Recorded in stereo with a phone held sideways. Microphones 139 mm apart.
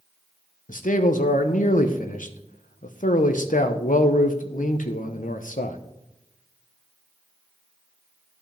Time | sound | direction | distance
0.7 | a man speaking | 70° left (ahead or behind) | 1.0 m